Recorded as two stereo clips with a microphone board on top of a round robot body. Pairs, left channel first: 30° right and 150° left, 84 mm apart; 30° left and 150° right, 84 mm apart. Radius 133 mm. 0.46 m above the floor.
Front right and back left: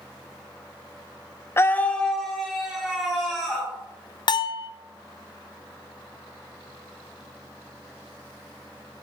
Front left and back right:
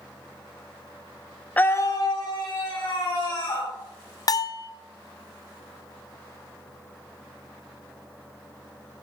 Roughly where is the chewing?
No chewing in this recording.